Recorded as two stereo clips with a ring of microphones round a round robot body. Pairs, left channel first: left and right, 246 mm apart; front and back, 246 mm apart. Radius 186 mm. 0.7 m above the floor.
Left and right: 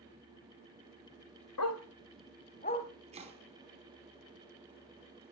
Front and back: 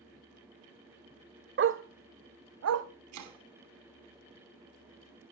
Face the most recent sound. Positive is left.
turn(degrees=-160)